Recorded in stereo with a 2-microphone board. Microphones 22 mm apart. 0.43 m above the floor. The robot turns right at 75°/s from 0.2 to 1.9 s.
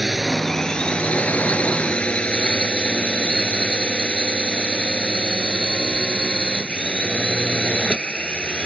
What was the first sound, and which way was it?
A drone, 5° right.